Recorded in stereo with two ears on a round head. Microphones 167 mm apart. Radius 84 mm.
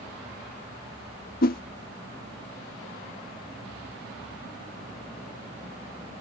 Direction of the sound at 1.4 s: 50° left (ahead or behind).